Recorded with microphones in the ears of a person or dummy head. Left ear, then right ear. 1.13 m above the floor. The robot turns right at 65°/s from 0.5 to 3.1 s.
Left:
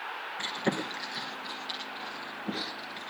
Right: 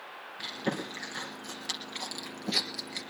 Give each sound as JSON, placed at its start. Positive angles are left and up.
{"t": 0.4, "sound": "chewing", "side_deg": 20, "distance_m": 3.5}